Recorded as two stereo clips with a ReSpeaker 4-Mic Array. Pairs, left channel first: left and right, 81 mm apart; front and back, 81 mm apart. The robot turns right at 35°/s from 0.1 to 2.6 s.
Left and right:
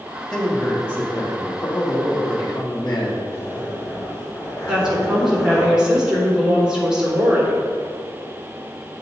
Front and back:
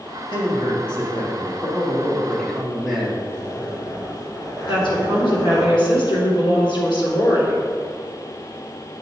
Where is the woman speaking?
10° right, 3.5 m.